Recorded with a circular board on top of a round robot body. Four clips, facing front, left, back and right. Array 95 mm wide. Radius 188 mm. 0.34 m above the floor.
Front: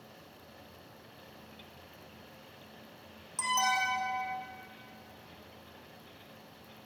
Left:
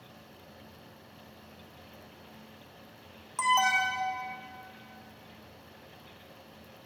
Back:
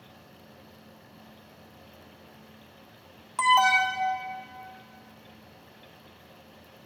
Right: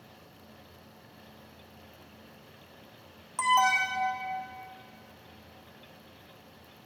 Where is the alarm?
Straight behind, 1.6 m.